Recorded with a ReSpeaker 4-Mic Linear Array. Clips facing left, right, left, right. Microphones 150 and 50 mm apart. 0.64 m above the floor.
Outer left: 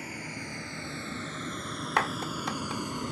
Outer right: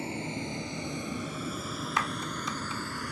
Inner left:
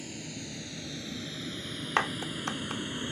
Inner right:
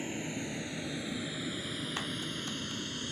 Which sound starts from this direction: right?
A vehicle, at 0.0 s.